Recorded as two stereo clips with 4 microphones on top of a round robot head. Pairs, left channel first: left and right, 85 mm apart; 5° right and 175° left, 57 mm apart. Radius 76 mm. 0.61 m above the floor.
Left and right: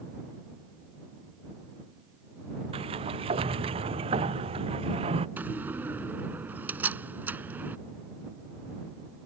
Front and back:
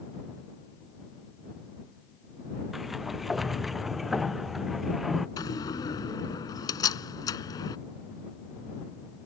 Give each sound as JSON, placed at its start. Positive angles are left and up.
{"t": 2.7, "sound": "a sliding door", "azimuth_deg": -95}
{"t": 5.4, "sound": "a door slam", "azimuth_deg": -15}